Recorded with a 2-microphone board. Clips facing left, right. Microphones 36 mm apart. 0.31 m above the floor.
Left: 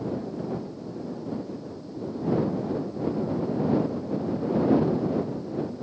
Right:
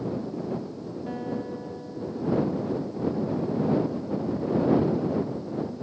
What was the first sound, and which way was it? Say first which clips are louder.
A guitar: right 3 dB; 65° right (ahead or behind).